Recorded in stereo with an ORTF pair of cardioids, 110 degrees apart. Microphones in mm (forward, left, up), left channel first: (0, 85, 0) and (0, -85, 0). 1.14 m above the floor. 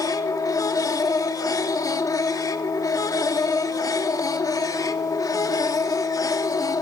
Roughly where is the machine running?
Ahead.